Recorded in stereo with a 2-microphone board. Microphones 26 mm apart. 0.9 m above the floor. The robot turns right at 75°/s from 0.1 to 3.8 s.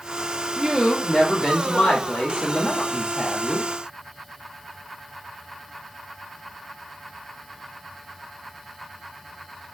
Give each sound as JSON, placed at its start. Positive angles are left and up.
{"t": 0.6, "sound": "a woman speaking", "azimuth_deg": -35, "distance_m": 1.1}